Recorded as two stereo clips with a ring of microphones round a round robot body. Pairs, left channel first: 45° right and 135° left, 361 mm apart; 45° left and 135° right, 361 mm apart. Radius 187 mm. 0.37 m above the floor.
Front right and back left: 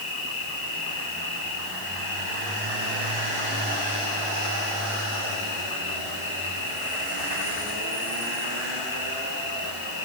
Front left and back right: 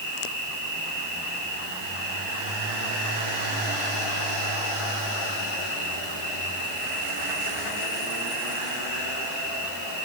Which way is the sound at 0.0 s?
20° right.